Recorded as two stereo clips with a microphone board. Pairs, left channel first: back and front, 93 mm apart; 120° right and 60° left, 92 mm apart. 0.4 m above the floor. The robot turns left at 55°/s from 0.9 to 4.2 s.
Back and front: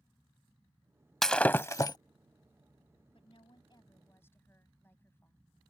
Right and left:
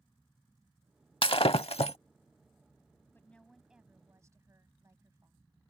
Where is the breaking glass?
95° right; by 2.0 s 135° right.